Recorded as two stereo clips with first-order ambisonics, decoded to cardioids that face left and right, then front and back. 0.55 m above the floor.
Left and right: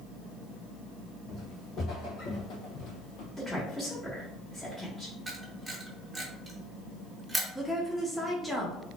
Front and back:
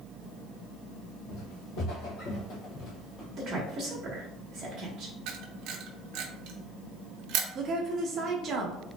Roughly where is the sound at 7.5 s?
Behind.